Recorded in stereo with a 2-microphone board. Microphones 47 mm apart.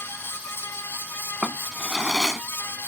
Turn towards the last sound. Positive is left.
turn(degrees=-5)  # may be behind; listen again after turning